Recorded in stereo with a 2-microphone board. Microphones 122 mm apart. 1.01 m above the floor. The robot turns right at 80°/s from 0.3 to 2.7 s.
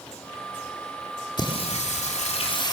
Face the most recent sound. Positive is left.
turn(degrees=145)